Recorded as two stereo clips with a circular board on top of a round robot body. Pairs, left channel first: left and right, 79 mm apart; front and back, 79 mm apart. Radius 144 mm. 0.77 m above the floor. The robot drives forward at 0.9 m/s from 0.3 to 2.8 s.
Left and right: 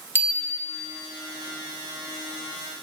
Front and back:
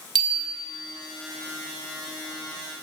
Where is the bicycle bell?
150° left, 2 m; by 0.7 s 155° left, 2.5 m.